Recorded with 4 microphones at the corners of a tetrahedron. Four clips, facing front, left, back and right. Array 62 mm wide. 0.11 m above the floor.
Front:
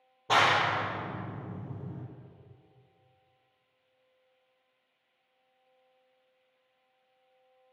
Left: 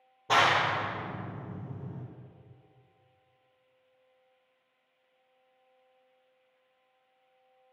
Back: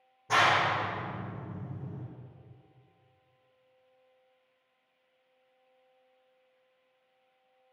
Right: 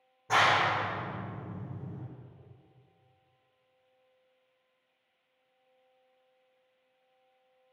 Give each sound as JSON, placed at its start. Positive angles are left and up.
{"t": 0.3, "sound": "a clap", "azimuth_deg": 40, "distance_m": 2.0}